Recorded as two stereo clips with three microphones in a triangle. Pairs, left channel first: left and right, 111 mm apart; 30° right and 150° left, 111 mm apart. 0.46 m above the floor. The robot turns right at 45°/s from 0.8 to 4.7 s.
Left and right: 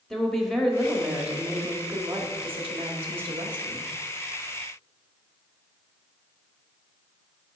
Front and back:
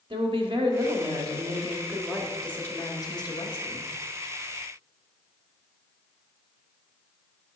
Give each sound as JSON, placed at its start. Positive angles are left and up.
{"t": 0.1, "sound": "a woman speaking", "azimuth_deg": 175, "distance_m": 1.6}